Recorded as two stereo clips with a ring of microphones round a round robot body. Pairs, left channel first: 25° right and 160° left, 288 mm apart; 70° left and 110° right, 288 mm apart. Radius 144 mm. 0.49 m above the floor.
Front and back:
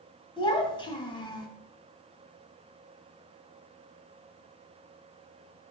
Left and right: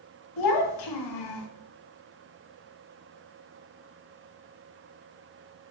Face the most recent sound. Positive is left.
turn(degrees=50)